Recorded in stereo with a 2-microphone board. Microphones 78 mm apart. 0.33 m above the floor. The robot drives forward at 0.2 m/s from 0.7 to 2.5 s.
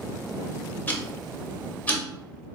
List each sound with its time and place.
0.9 s ticking: 25° left (ahead or behind), 0.5 m; by 2.0 s 20° left (ahead or behind), 0.6 m